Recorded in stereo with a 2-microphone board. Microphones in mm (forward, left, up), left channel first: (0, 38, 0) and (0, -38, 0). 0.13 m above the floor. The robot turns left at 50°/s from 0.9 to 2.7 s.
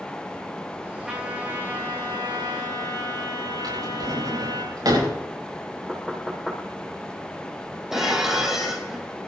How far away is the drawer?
About 9 m.